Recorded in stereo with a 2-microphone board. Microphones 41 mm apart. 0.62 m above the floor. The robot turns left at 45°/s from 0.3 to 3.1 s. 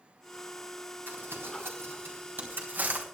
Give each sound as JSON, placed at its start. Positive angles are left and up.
{"t": 1.1, "sound": "crumpling", "side_deg": -50, "distance_m": 4.0}